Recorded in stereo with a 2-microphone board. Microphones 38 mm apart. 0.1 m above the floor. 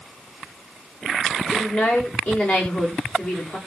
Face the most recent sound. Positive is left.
turn(degrees=45)  # may be behind; listen again after turning